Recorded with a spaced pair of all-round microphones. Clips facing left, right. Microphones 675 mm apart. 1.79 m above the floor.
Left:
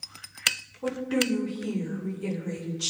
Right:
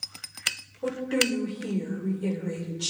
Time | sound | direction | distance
0.8 | a woman speaking | 35° left (ahead or behind) | 6 m